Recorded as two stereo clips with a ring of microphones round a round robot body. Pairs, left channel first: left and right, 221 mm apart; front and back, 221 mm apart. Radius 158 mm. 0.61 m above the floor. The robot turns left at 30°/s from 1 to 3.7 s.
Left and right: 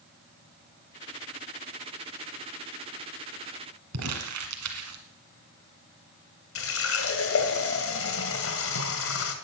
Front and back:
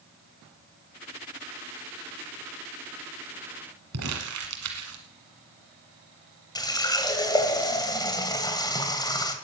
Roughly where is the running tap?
Left.